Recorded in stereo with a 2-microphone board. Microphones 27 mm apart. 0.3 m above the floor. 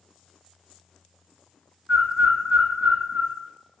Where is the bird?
85° right, 0.5 m.